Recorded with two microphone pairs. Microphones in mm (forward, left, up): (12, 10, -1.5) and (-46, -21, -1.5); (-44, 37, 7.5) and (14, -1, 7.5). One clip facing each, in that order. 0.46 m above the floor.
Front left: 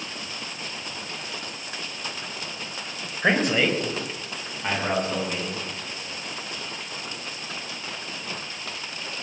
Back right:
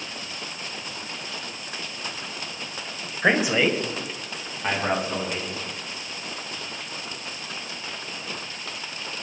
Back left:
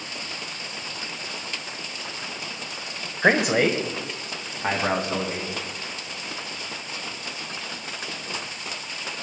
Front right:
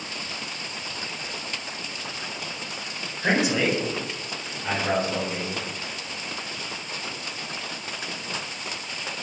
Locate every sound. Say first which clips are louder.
3.2 s a man speaking: back right 1 dB, back left 3 dB; 130° left, 2.0 m; by 5.6 s 125° left, 5.5 m